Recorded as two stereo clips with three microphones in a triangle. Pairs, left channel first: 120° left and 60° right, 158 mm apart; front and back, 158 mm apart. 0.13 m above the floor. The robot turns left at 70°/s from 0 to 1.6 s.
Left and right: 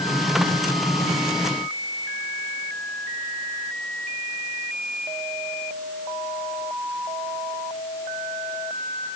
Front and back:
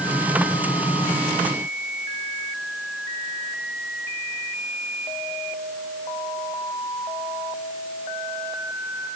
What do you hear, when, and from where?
Only background noise.